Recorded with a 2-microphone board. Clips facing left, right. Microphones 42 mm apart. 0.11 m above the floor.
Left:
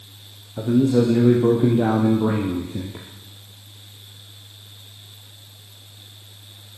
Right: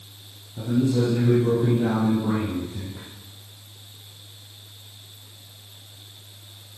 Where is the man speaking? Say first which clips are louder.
Left 5 dB; 50° left (ahead or behind), 3 m; by 3.0 s 65° left (ahead or behind), 2.5 m.